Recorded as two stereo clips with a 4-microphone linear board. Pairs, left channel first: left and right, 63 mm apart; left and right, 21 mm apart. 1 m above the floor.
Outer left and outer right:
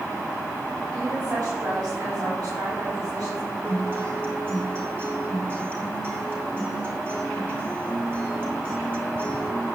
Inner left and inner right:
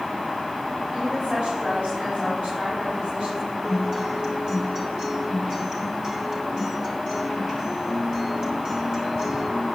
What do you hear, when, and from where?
0.9 s a woman speaking: 75° right (ahead or behind), 6 m
3.6 s a guitar: 35° right (ahead or behind), 3 m